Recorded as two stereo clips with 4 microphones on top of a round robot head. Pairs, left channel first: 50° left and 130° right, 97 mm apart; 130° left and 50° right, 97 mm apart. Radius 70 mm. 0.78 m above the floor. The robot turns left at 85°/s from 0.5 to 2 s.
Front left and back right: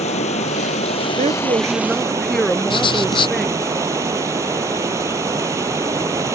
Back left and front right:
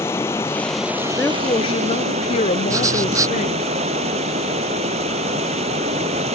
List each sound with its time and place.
0.0 s running water: 60° left; by 6.4 s 65° right
1.2 s a woman speaking: 150° right; by 3.7 s 140° left
2.7 s writing: 10° left